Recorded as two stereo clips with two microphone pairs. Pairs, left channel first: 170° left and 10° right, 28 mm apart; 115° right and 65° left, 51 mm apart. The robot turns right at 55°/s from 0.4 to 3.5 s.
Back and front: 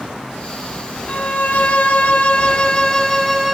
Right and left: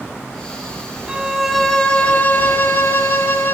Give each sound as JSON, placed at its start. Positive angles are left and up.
{"t": 1.1, "sound": "a violin", "azimuth_deg": 135, "distance_m": 1.2}